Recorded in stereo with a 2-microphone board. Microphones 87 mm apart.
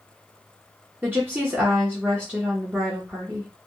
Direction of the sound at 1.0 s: 20° right (ahead or behind).